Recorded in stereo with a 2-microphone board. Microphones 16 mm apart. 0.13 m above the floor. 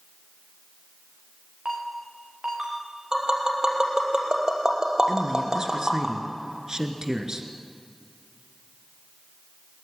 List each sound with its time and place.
1.6 s a ringtone: 50° right (ahead or behind), 8.5 m
3.1 s tapping: 40° right (ahead or behind), 4.5 m
5.1 s a man speaking: 40° right (ahead or behind), 2.5 m